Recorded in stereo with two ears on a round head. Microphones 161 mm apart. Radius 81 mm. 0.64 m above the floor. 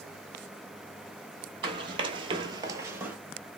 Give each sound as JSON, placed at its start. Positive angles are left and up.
{"t": 1.6, "sound": "running footsteps", "side_deg": -30, "distance_m": 1.0}